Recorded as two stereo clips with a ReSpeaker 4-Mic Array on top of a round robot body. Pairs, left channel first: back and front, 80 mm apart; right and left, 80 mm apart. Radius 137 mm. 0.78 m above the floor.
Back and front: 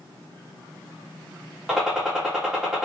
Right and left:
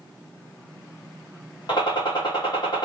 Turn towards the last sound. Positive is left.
turn(degrees=-80)